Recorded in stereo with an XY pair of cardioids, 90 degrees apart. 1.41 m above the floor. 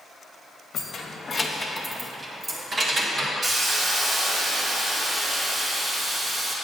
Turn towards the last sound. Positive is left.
turn(degrees=-35)